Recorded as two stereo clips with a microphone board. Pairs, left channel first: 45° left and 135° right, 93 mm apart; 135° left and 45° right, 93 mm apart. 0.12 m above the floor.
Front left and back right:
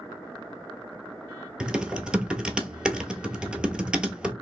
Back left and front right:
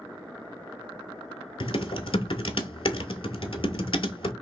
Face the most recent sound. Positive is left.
turn(degrees=145)